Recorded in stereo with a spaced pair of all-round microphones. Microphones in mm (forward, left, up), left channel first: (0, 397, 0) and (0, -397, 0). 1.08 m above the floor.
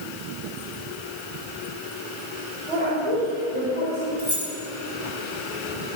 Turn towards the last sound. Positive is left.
turn(degrees=-55)  # may be behind; listen again after turning